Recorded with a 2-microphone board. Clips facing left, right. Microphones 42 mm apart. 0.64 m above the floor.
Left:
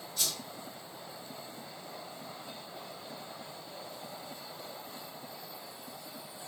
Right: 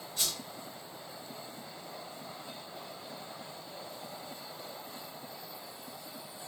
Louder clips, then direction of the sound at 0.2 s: Even; 45° right (ahead or behind).